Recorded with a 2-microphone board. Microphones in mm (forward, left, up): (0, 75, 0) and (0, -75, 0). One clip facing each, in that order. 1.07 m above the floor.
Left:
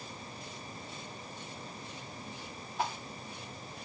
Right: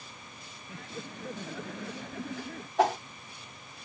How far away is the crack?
I don't hear a crack.